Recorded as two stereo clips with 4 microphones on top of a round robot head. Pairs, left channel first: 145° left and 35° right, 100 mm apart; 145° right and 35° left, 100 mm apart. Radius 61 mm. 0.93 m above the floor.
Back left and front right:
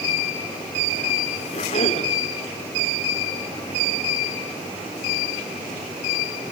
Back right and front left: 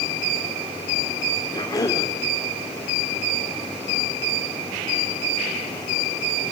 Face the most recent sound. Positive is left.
turn(degrees=165)